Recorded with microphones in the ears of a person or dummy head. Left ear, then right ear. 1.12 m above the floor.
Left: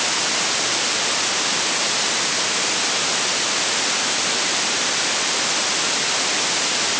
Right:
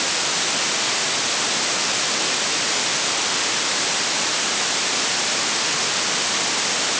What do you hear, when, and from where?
Only background noise.